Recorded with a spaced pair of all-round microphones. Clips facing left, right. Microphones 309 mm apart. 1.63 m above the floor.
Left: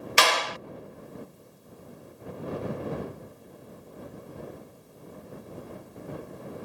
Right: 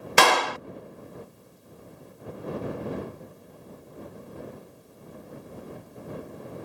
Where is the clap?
60° right (ahead or behind).